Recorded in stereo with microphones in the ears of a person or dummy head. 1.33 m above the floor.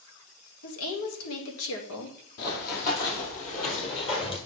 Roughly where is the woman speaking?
Left.